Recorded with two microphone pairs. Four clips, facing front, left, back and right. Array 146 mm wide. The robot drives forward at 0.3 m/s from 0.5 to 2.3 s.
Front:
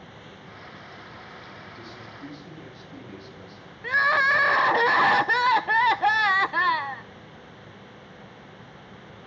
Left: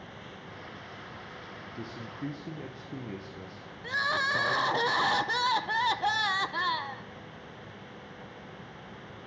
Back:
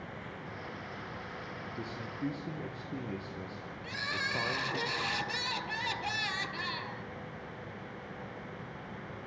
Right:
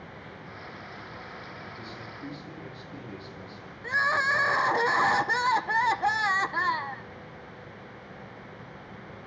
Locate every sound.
1.8 s a man speaking: 125° left, 4 m
3.8 s crying: 5° right, 0.5 m